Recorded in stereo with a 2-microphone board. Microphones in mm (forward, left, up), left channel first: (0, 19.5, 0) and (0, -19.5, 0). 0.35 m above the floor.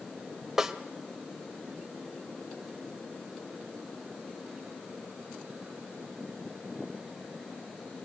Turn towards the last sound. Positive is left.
turn(degrees=-10)  # may be behind; listen again after turning